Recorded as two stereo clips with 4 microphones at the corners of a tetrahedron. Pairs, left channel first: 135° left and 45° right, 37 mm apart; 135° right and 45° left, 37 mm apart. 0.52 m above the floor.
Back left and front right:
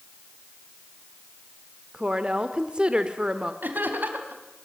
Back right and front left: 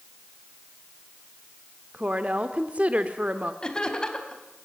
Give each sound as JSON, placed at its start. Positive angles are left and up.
{"t": 1.9, "sound": "a woman speaking", "azimuth_deg": 15, "distance_m": 1.3}
{"t": 3.6, "sound": "laughter", "azimuth_deg": -65, "distance_m": 4.0}